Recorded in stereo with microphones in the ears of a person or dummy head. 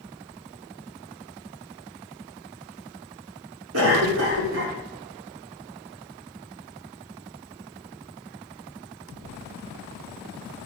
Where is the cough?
75° right (ahead or behind), 3 m.